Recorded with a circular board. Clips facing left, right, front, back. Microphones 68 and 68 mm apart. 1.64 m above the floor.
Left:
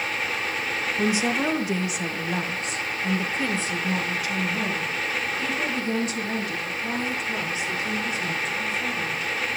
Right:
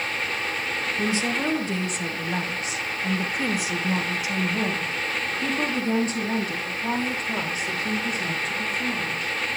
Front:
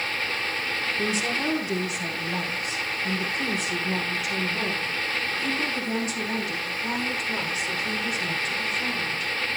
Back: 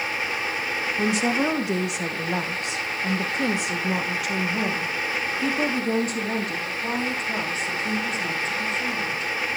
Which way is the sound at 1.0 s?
160° left.